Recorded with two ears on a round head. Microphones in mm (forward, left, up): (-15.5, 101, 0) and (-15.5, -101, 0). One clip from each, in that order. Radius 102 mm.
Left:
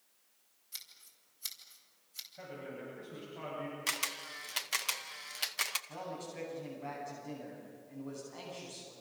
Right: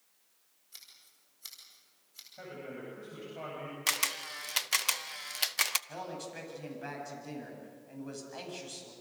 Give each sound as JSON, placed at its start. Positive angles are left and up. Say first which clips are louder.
{"t": 0.7, "sound": "scissors", "louder": "left 4 dB", "side_deg": 25, "distance_m": 5.0}
{"t": 2.4, "sound": "a man speaking", "louder": "right 3 dB", "side_deg": -15, "distance_m": 10.0}
{"t": 3.9, "sound": "a camera shutter", "louder": "right 5 dB", "side_deg": -15, "distance_m": 0.6}
{"t": 5.9, "sound": "a man speaking", "louder": "right 2 dB", "side_deg": -65, "distance_m": 9.0}